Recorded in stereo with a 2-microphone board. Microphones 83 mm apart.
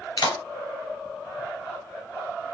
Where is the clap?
55° left (ahead or behind), 2.5 m.